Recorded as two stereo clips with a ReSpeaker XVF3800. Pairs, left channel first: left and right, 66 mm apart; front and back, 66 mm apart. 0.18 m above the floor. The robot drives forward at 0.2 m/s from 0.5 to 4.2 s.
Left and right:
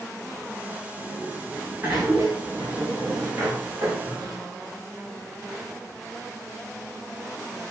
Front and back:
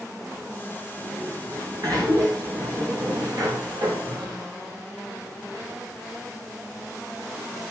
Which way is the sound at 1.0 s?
150° right.